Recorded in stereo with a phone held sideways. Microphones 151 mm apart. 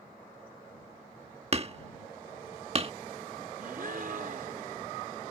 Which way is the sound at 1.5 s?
40° right (ahead or behind).